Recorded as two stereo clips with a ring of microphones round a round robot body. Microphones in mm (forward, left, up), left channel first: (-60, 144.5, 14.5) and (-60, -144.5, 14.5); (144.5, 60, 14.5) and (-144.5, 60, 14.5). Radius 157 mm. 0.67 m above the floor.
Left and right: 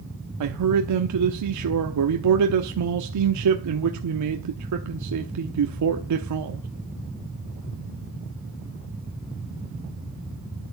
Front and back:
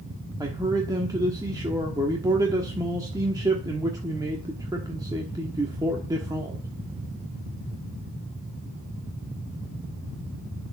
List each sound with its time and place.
0.4 s a man speaking: 100° right, 1.0 m